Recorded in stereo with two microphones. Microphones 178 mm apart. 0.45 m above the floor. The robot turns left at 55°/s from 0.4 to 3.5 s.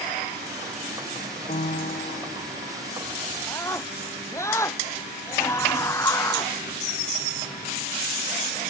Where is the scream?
20° left (ahead or behind); by 6.5 s 15° left (ahead or behind).